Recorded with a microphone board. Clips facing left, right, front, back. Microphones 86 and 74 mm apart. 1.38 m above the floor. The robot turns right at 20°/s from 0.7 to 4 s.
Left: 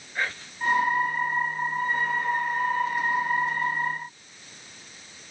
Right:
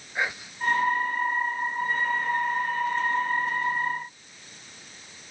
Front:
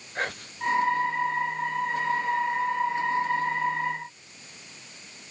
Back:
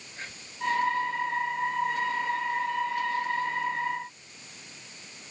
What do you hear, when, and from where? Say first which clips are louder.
0.1 s whispering: right 1 dB, front 7 dB; 15° right